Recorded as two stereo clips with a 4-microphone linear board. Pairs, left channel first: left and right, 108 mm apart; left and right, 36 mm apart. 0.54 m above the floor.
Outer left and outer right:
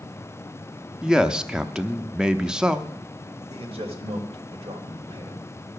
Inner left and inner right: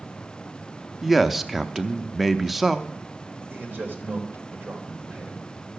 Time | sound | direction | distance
1.0 | a man speaking | 5° right (ahead or behind) | 0.6 m
3.5 | a man speaking | 60° right (ahead or behind) | 2.5 m